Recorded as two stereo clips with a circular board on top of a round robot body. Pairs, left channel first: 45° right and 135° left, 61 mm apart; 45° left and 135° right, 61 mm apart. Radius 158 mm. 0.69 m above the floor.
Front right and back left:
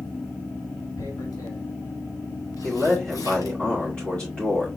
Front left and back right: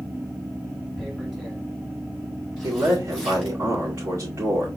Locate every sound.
1.0 s tearing paper: 55° right, 3.5 m
2.6 s a man speaking: 120° right, 2.5 m